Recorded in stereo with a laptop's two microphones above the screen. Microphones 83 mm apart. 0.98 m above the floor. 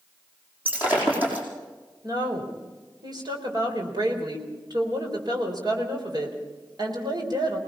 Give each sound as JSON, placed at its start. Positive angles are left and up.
{"t": 0.7, "sound": "breaking glass", "side_deg": -20, "distance_m": 5.5}
{"t": 2.0, "sound": "a woman speaking", "side_deg": -55, "distance_m": 4.0}